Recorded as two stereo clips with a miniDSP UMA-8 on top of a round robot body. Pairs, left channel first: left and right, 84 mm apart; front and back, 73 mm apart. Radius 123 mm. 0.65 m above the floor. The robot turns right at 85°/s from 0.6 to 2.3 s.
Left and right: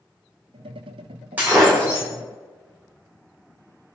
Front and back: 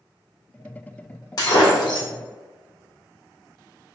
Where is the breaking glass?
20° right, 1.8 m; by 2.1 s 40° left, 1.8 m.